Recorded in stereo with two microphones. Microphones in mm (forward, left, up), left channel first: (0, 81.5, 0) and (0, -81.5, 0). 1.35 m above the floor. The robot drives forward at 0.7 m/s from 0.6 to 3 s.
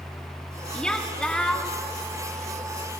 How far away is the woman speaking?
About 3.5 m.